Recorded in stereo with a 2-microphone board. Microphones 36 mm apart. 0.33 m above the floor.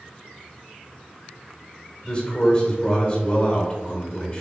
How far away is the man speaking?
About 1.1 m.